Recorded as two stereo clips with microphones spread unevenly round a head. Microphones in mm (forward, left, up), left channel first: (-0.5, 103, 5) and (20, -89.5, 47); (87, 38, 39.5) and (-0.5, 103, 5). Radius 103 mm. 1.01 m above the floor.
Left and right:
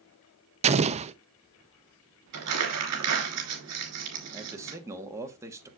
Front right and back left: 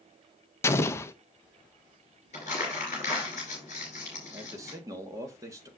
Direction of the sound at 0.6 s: 115° right.